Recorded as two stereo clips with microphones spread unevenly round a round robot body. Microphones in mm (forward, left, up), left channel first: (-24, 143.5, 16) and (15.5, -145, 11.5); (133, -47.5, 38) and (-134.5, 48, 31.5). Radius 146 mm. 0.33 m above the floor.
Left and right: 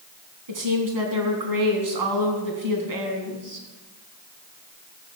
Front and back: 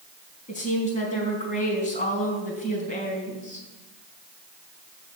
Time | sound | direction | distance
0.5 | a woman speaking | 85° right | 3.5 m